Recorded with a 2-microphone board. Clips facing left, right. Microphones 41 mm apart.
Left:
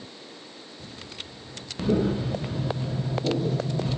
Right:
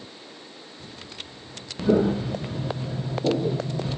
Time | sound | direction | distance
1.9 | footsteps | 65° right (ahead or behind) | 1.3 m